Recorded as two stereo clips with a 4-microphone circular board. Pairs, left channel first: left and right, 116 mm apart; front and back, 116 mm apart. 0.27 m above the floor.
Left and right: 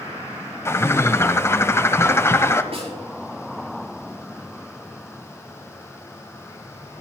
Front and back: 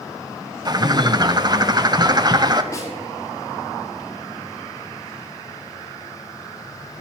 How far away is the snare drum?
About 5.5 m.